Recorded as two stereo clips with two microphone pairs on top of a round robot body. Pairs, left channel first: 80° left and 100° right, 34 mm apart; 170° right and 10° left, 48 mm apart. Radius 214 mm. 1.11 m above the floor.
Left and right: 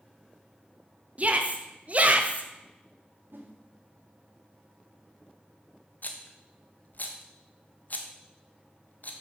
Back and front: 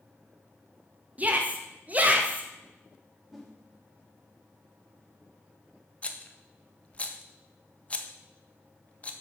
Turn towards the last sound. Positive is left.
turn(degrees=125)